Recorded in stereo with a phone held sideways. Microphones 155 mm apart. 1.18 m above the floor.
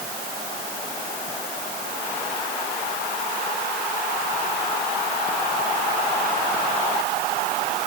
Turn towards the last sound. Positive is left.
No sound to turn to.